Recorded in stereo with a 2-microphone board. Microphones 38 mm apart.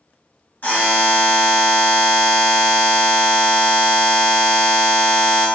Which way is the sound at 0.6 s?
55° left (ahead or behind).